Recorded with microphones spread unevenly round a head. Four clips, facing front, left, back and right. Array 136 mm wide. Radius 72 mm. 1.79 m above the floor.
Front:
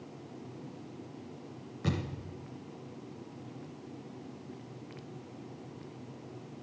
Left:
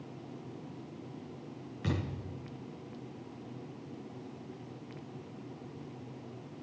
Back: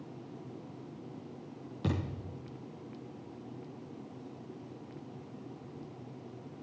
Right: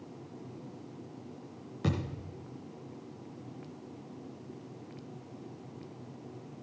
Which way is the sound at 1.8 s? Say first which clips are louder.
Right 2 dB, even; 125° right.